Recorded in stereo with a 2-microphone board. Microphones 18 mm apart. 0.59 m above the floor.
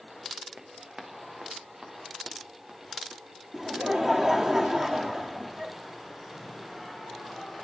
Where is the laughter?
30° right (ahead or behind), 0.9 m.